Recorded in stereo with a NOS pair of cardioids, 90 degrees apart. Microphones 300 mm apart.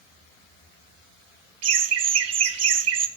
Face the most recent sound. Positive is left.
turn(degrees=-55)